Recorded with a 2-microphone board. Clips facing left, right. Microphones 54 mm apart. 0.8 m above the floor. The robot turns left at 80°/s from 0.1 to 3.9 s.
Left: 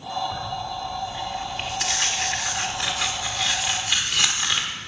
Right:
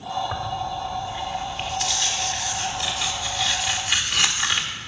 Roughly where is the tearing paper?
Right.